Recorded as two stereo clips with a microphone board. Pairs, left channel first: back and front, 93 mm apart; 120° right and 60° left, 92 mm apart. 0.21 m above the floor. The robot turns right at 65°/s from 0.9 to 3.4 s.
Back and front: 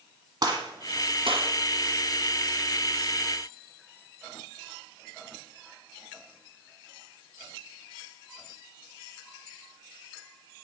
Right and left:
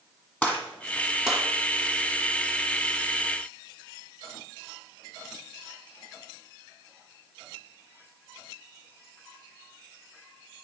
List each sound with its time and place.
0.4 s a gunshot: 45° right, 1.6 m; by 1.4 s 10° right, 1.6 m